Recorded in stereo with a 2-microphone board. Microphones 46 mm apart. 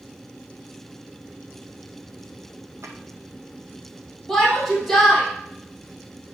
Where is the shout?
5° left (ahead or behind), 3.5 m.